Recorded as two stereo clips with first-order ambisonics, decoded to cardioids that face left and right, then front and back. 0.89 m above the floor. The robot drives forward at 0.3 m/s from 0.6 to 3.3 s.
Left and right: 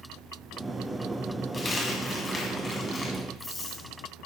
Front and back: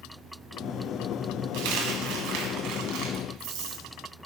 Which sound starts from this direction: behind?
A dropped coin, at 1.5 s.